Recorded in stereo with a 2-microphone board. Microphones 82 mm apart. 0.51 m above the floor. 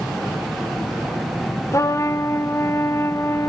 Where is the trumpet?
35° left (ahead or behind), 0.9 m.